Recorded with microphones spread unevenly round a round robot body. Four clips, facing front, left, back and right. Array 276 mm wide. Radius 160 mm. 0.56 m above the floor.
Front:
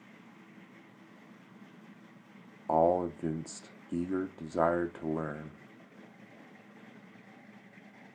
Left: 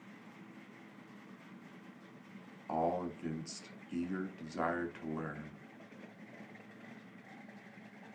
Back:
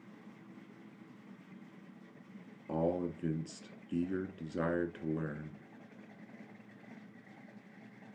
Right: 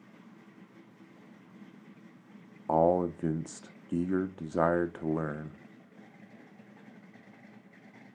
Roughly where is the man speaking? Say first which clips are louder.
Right 9 dB, front 8 dB; ahead right.